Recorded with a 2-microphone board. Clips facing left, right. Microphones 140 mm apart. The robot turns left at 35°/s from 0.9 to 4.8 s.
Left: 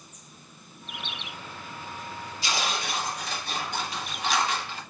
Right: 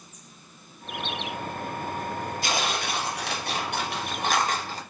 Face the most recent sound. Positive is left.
turn(degrees=-140)